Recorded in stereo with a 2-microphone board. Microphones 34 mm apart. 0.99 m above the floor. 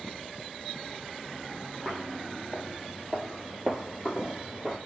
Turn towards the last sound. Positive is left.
turn(degrees=-20)  # may be behind; listen again after turning